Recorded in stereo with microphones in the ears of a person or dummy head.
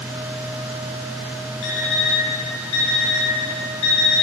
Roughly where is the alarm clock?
Left.